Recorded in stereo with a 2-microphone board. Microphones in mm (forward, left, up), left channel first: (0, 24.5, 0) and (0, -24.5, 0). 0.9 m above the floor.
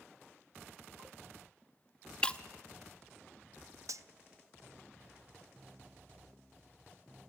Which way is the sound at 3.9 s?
80° right.